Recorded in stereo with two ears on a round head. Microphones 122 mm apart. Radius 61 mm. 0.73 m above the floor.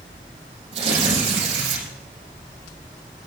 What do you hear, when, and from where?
0.7 s tearing paper: 40° right (ahead or behind), 5 m